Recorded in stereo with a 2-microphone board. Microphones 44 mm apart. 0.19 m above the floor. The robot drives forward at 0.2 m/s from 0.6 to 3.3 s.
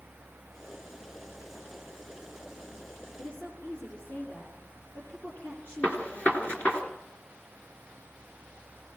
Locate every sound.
3.2 s a woman speaking: 30° left (ahead or behind), 5 m
5.8 s a gunshot: 30° left (ahead or behind), 3 m